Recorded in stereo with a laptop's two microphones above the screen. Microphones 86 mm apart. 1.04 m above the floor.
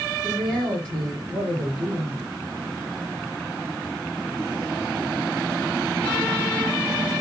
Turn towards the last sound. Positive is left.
turn(degrees=20)  # may be behind; listen again after turning